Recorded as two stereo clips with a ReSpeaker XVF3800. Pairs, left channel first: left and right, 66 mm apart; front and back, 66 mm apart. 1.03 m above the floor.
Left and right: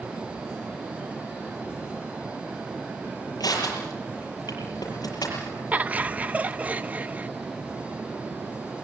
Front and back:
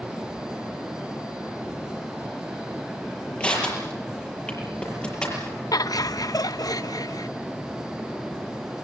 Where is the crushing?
75° left, 6.5 m.